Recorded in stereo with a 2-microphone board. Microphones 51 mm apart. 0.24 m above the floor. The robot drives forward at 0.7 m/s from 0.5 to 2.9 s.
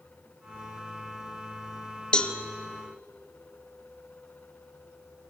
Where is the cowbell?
20° left (ahead or behind), 0.9 m.